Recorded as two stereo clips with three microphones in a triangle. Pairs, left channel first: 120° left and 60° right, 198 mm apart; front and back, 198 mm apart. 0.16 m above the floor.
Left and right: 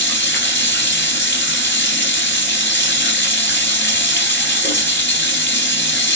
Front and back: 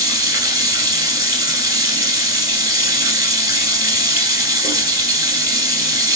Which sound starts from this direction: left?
Running water, at 0.0 s.